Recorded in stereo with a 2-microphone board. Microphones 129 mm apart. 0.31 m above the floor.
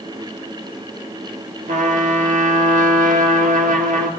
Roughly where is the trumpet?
Right.